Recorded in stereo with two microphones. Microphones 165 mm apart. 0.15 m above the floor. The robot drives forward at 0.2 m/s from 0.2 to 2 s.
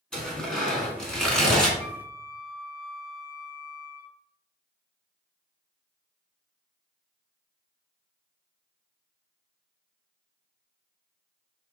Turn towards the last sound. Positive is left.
turn(degrees=20)  # may be behind; listen again after turning